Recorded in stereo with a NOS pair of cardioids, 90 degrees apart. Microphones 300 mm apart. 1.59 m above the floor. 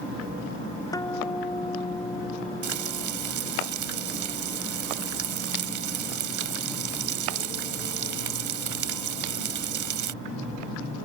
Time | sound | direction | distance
0.9 | a guitar | 10° left | ?
2.6 | frying | 70° right | ?